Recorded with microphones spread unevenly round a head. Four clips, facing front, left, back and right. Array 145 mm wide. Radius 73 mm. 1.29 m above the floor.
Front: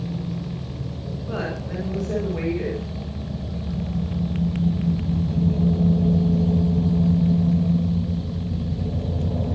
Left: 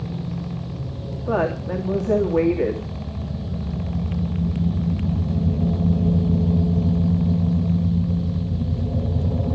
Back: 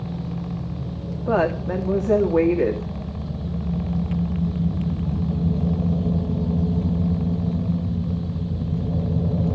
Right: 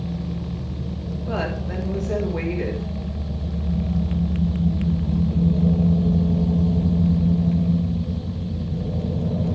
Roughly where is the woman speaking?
Behind left.